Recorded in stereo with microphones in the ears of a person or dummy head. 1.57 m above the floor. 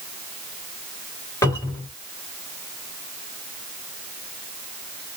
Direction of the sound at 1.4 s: 15° left (ahead or behind).